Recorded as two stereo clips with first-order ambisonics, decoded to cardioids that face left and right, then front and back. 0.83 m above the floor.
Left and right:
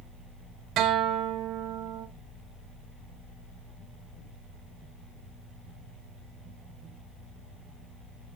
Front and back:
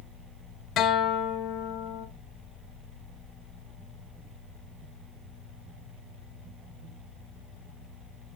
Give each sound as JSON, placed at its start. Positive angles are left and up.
{"t": 0.8, "sound": "a guitar", "azimuth_deg": -45, "distance_m": 1.1}